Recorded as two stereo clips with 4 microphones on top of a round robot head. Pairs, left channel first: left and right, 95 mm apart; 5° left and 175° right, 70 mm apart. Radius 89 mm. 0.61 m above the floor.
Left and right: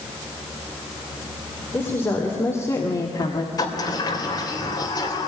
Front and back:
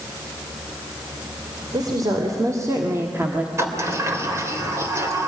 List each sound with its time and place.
1.7 s a woman speaking: 165° left, 3 m; by 3.5 s 115° left, 1.7 m
3.6 s a sliding door: 140° left, 3 m